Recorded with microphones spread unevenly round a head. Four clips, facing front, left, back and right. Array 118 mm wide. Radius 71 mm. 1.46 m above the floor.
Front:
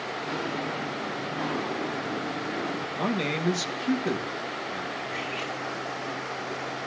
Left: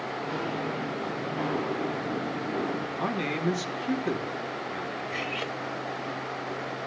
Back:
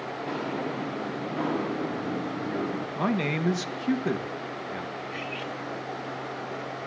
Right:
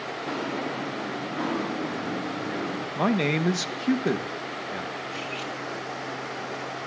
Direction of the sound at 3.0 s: 95° right.